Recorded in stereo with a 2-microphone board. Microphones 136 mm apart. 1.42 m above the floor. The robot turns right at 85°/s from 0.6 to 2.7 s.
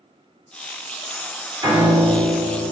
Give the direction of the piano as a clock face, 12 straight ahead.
1 o'clock.